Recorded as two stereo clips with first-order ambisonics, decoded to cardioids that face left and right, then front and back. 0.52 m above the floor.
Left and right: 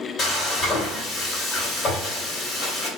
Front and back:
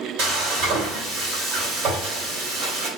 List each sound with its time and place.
0.2 s frying: 155° left, 2.5 m